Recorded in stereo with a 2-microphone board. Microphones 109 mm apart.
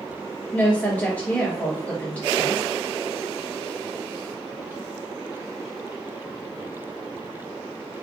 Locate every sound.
0.5 s a woman speaking: 15° left (ahead or behind), 1.8 m